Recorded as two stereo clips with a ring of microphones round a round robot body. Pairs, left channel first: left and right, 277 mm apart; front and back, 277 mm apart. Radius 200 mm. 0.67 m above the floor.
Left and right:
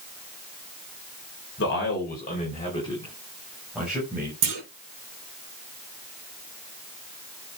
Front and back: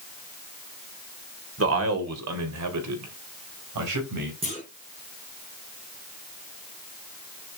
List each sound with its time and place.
1.6 s a man speaking: 145° left, 3 m; by 4.3 s 175° right, 4 m
4.4 s a clunk: 105° right, 5 m